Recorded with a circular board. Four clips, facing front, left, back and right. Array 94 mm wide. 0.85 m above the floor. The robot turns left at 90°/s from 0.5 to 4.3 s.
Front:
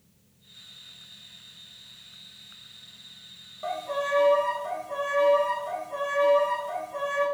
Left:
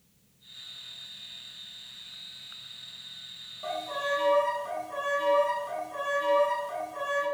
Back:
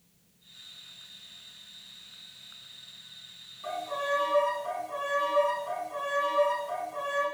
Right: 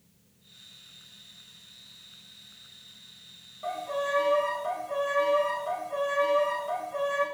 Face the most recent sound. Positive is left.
turn(degrees=-65)